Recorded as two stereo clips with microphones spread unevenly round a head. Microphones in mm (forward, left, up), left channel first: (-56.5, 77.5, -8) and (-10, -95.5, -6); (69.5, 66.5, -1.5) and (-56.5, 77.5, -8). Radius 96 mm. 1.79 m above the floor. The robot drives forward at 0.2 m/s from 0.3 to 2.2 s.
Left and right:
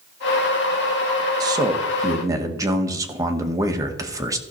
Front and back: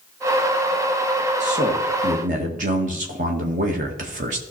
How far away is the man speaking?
About 1.7 m.